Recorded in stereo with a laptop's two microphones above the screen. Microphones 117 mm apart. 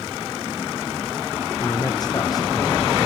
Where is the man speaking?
35° left (ahead or behind), 0.8 m.